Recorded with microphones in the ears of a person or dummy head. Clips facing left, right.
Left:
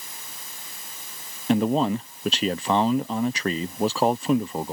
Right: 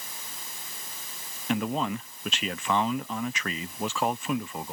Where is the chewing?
No chewing in this recording.